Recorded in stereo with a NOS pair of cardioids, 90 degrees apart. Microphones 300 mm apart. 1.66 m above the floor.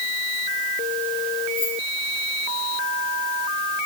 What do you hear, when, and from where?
1.6 s keys jangling: 55° left, 3 m